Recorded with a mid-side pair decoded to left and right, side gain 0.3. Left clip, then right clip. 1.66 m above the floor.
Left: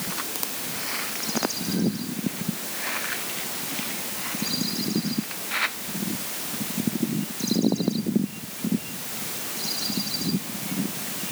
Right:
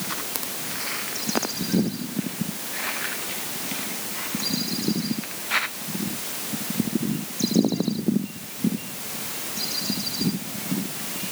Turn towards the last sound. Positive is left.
No sound to turn to.